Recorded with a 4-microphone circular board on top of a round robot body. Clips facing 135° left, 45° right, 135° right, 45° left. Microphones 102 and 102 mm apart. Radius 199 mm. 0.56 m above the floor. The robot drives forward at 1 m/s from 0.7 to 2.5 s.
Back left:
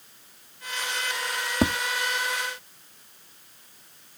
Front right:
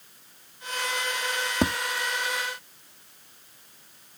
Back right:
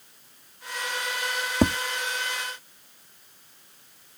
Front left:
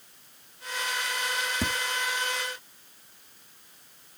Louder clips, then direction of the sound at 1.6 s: Back left 2 dB, back right 12 dB; 135° right.